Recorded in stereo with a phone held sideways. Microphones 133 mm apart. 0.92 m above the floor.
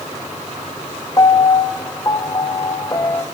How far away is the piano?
About 1.1 m.